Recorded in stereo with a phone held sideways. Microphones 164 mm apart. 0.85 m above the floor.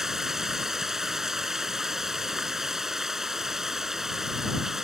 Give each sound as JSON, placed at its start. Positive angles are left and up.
{"t": 0.0, "sound": "running water", "side_deg": 0}